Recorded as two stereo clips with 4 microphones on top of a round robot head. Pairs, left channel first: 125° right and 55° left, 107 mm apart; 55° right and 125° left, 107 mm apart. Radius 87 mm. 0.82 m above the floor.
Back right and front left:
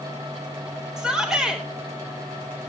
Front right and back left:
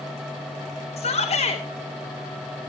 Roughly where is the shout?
Ahead right.